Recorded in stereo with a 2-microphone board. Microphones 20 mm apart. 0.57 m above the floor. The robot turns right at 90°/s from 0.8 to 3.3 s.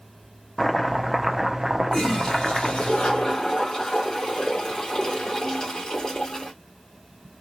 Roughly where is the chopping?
Centre.